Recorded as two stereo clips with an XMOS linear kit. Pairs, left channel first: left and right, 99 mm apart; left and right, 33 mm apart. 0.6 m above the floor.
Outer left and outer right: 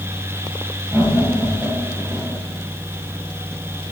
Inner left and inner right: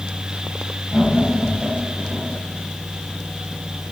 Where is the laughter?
10° right (ahead or behind), 3 m; by 2.4 s 5° right (ahead or behind), 1.5 m.